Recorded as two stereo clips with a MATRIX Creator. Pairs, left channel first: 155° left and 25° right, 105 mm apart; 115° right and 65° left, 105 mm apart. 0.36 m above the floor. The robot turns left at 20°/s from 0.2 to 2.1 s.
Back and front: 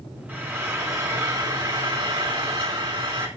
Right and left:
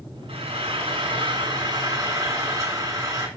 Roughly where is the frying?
Ahead left.